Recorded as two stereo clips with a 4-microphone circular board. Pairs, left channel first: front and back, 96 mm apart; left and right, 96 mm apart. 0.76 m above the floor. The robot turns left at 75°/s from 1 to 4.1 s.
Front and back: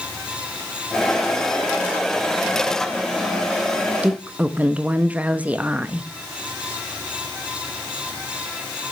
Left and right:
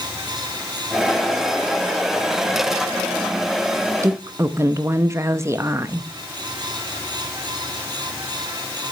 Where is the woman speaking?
115° right, 0.6 m; by 6.1 s 120° right, 0.6 m.